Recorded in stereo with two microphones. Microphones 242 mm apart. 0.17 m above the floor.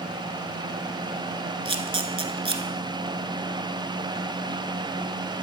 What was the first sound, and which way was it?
A camera shutter, 25° right (ahead or behind).